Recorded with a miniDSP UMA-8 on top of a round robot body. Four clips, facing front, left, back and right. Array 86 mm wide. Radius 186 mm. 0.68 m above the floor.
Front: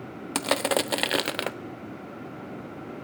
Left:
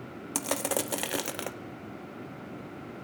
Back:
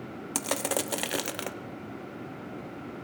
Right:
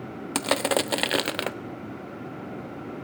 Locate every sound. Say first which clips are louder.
0.3 s crushing: right 7 dB, front 6 dB; 55° right, 0.9 m